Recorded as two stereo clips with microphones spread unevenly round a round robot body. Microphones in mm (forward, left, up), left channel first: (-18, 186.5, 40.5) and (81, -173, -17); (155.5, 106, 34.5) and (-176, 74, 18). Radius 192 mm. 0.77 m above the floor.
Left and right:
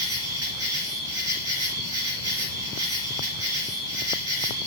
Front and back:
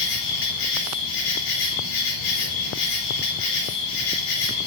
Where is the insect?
25° right, 3.5 m.